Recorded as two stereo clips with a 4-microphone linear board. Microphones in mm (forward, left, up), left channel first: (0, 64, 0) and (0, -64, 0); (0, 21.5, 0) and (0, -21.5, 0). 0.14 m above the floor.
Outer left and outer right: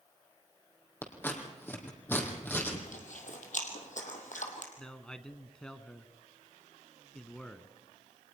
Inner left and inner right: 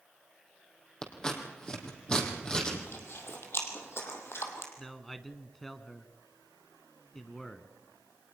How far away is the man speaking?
About 1.0 m.